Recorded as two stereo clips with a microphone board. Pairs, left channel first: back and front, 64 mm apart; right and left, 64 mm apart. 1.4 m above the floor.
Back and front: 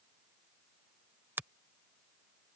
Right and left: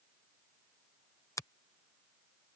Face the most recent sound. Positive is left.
turn(degrees=-55)